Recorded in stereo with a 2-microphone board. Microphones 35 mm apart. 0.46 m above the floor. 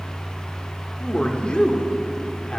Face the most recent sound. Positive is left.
turn(degrees=30)  # may be behind; listen again after turning